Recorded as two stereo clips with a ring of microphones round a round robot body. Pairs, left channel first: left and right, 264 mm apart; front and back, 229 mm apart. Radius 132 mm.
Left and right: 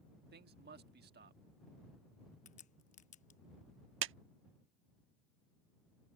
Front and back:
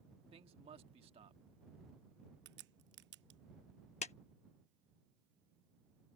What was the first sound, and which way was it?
A man speaking, 125° right.